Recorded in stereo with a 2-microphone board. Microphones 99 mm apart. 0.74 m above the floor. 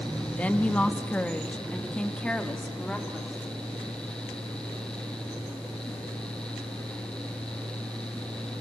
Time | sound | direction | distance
0.4 | a woman speaking | 15° left (ahead or behind) | 1.0 m